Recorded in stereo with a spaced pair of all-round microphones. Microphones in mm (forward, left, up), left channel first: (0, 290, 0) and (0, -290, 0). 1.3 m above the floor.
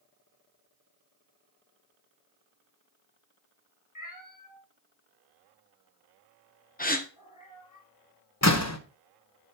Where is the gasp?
15° left (ahead or behind), 0.9 m.